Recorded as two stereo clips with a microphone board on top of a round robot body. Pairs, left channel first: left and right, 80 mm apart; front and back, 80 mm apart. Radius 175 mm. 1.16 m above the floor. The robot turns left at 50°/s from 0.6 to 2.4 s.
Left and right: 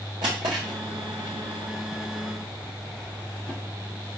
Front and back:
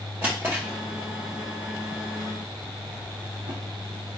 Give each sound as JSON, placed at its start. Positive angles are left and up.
{"t": 0.2, "sound": "a drawer", "azimuth_deg": -115, "distance_m": 0.5}